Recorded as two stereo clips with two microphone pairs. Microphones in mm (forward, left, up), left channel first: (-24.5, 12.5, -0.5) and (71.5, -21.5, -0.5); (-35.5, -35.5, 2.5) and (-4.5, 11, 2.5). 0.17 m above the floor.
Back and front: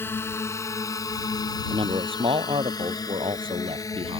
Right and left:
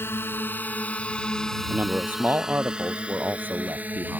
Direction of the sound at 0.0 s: 140° right.